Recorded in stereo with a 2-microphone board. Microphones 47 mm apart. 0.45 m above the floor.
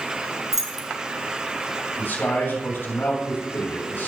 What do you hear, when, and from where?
0.5 s keys jangling: 10° right (ahead or behind), 1.3 m
2.0 s a man speaking: 55° left (ahead or behind), 3 m